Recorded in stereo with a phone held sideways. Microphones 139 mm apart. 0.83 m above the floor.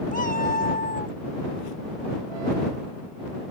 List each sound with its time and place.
0.1 s a cat meowing: 65° left (ahead or behind); by 1.2 s 90° left